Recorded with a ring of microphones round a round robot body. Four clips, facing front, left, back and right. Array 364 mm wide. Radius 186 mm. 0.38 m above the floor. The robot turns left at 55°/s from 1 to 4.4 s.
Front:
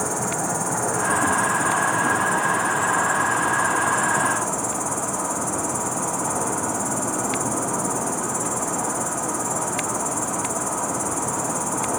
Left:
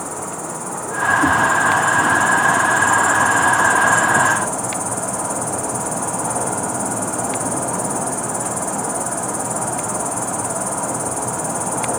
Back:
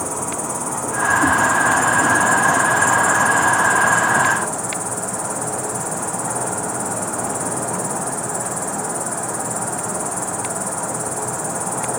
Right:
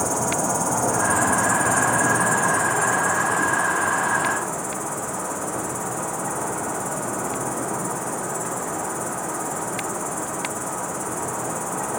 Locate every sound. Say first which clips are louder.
0.0 s an insect: right 4 dB, even; 80° right, 2 m; by 12.0 s 95° left, 2 m